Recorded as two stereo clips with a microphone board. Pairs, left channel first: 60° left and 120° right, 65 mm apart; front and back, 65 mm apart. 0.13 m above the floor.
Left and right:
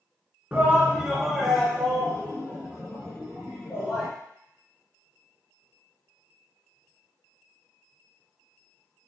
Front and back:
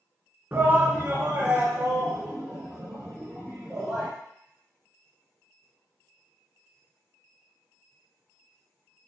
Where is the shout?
160° right, 1.2 m; by 4.1 s 110° left, 3 m.